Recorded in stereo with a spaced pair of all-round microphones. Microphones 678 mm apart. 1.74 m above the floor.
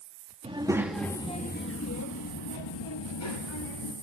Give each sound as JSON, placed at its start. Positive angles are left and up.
{"t": 0.4, "sound": "a child speaking", "side_deg": -10, "distance_m": 1.5}